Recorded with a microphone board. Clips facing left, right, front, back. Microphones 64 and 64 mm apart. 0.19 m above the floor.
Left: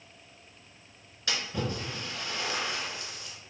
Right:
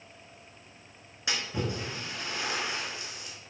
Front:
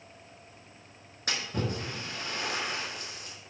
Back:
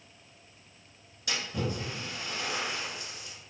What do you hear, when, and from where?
1.3 s a splash: 25° right, 1.2 m